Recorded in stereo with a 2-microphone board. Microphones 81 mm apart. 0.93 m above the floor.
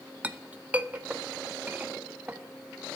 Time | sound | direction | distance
0.2 | a clink | 20° right (ahead or behind) | 0.7 m